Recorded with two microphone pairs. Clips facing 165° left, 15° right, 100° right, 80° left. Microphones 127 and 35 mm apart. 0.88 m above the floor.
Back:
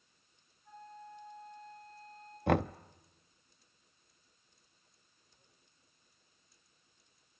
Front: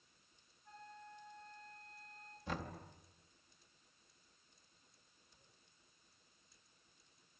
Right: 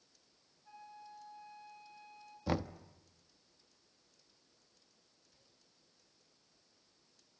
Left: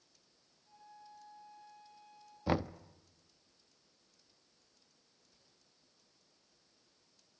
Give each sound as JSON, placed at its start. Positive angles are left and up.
{"t": 0.7, "sound": "a flute", "azimuth_deg": -115, "distance_m": 6.0}
{"t": 2.5, "sound": "knocking", "azimuth_deg": 155, "distance_m": 0.5}